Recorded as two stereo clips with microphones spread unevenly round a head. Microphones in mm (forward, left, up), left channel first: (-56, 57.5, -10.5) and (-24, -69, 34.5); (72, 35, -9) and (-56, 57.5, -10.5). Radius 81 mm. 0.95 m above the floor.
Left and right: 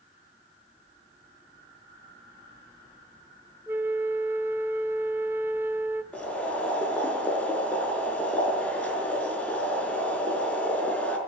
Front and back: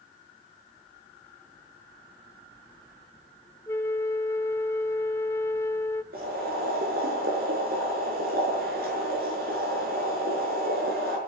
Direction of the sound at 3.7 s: 65° right.